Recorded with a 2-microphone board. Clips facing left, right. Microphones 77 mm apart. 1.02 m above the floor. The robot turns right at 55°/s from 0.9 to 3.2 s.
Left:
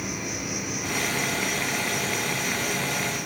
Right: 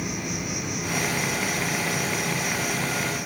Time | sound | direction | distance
0.0 | an insect | 100° right | 1.8 m